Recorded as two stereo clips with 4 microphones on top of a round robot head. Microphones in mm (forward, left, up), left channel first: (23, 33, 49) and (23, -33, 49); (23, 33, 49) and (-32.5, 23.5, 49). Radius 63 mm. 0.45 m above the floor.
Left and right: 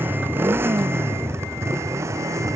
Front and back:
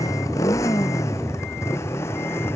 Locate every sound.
0.0 s a motorcycle: 30° right; by 2.6 s 45° right